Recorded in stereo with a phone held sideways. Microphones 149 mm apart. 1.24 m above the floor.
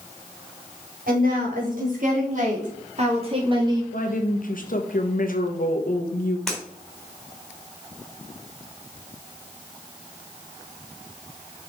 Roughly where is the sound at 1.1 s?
Right.